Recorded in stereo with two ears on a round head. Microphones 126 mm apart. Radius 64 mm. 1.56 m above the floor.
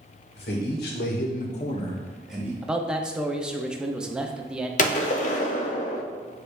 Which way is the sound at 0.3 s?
80° left.